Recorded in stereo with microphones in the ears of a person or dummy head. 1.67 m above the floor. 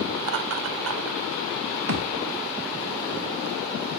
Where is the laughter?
60° right (ahead or behind), 1.2 m; by 1.2 s 70° right (ahead or behind), 1.8 m.